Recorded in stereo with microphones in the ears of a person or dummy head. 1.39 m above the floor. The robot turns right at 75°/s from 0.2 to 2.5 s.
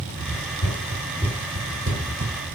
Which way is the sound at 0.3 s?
45° left (ahead or behind).